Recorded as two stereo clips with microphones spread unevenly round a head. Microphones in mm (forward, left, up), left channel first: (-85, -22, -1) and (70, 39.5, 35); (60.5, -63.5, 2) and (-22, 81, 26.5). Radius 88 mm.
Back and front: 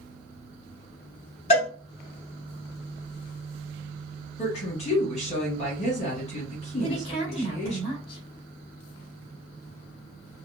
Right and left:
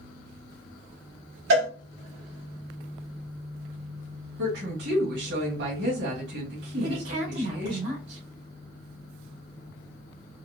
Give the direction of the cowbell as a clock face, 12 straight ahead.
7 o'clock.